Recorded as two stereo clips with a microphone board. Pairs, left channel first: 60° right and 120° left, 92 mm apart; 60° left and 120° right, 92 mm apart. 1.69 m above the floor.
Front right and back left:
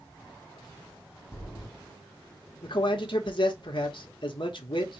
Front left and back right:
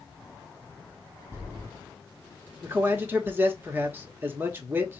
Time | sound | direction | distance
1.3 | footsteps | 85° right | 1.9 m
2.6 | a man speaking | 55° right | 1.1 m